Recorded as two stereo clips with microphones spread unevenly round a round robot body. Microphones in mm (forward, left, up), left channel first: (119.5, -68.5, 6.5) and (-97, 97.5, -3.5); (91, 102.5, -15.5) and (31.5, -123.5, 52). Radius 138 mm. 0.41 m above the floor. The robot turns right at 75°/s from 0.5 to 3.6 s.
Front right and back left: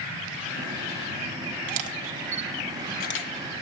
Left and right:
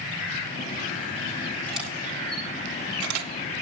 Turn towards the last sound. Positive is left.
turn(degrees=-55)